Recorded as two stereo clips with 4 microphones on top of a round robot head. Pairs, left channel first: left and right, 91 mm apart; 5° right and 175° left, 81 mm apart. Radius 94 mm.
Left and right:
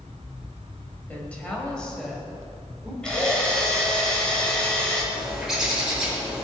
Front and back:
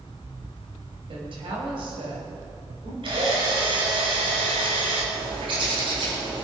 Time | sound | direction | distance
1.1 | a woman speaking | 165° left | 5 m
3.0 | a drill | 170° left | 4.5 m
5.1 | a bird | 175° right | 4.5 m